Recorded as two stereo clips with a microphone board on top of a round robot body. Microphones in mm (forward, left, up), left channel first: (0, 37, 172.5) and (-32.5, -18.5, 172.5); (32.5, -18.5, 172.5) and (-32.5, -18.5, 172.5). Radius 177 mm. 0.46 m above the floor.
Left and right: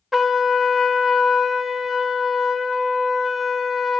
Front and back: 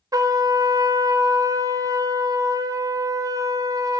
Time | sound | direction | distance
0.1 | a trumpet | 150° left | 0.7 m